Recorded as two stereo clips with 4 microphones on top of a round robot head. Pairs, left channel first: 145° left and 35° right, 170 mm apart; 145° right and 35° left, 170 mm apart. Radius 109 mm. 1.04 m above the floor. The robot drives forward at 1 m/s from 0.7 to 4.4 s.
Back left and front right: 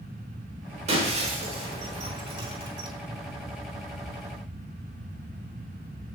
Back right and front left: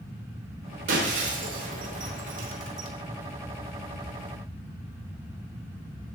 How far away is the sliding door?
I don't hear a sliding door.